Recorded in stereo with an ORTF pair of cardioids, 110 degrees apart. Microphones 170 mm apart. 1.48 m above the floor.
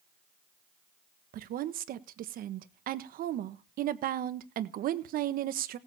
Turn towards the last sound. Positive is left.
turn(degrees=-60)